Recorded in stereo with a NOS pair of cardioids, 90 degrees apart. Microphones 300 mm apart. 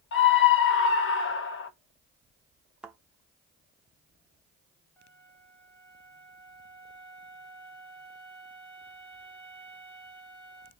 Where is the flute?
5° left, 1.4 m.